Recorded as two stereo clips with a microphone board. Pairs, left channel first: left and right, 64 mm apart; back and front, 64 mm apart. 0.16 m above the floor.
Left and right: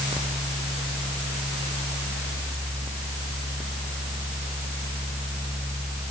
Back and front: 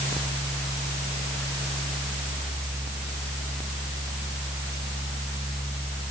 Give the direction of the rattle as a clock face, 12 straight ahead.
No rattle in this recording.